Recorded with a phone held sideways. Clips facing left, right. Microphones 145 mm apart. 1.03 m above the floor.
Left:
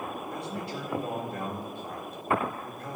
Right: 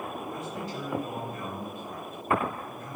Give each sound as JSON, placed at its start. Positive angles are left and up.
{"t": 0.3, "sound": "a man speaking", "side_deg": 70, "distance_m": 2.0}